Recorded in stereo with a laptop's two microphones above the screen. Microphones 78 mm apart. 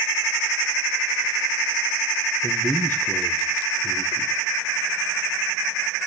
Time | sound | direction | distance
2.4 | a man speaking | 25° left (ahead or behind) | 0.9 m